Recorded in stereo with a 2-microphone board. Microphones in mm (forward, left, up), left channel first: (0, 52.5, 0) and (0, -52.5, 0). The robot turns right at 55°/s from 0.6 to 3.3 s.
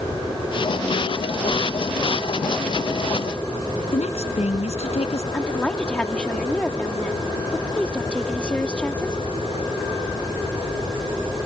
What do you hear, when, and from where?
3.9 s a woman speaking: 75° left (ahead or behind)
5.3 s a woman speaking: 10° left (ahead or behind)